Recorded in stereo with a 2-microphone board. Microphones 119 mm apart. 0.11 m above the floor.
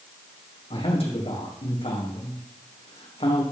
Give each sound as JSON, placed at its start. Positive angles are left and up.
{"t": 0.7, "sound": "a man speaking", "side_deg": 55, "distance_m": 5.0}